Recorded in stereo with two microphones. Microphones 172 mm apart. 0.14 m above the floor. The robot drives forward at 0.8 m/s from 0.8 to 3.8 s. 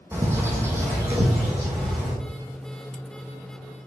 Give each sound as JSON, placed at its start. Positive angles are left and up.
{"t": 0.1, "sound": "a bird", "side_deg": -15, "distance_m": 1.7}